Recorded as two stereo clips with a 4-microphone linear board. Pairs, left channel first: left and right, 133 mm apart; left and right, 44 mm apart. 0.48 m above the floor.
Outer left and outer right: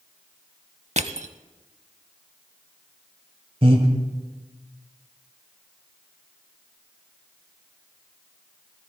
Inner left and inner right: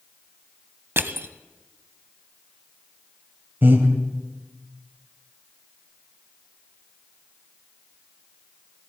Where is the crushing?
60° right (ahead or behind), 0.6 m.